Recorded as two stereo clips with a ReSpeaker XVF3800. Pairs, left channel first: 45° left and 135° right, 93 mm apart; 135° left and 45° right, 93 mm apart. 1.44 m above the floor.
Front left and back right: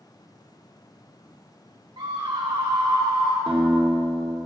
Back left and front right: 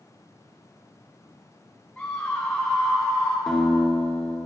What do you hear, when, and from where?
2.0 s a scream: 145° right, 1.6 m
3.5 s a guitar: 135° right, 3 m